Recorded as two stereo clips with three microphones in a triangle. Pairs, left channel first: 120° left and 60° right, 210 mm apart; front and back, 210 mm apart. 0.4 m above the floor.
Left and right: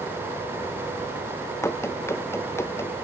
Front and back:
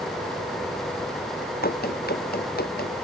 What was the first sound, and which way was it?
Running footsteps, 45° left.